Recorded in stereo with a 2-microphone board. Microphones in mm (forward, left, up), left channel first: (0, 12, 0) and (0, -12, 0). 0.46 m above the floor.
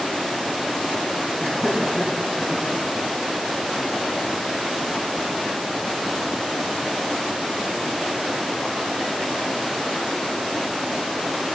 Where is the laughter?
25° left (ahead or behind), 7.5 m; by 2.6 s 10° left (ahead or behind), 6.5 m.